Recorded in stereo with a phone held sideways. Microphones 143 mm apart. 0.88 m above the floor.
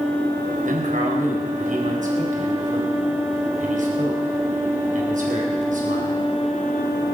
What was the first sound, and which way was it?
A man speaking, 70° right (ahead or behind).